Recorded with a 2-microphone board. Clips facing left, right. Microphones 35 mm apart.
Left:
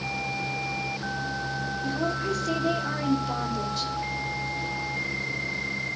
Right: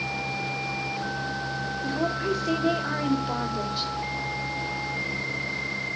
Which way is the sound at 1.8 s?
20° right (ahead or behind).